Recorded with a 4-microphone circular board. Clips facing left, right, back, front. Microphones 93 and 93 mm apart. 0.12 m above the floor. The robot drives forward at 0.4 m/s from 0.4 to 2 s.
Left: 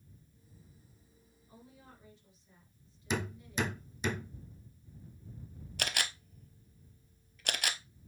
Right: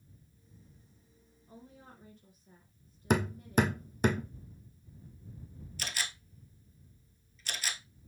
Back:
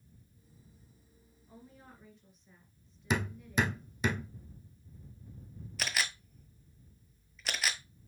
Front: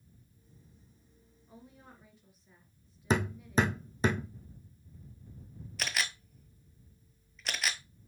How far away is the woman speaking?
About 2 m.